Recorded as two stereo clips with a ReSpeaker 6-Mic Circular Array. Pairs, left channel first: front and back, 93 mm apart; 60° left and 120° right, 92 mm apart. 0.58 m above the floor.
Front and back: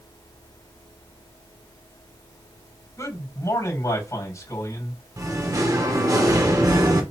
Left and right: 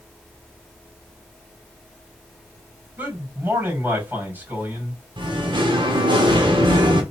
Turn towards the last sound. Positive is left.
turn(degrees=-130)